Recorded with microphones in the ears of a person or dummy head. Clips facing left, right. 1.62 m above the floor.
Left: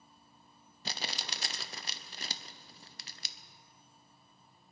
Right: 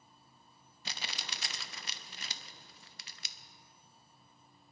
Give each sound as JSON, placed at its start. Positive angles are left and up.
{"t": 0.8, "sound": "crumpling", "side_deg": 35, "distance_m": 0.7}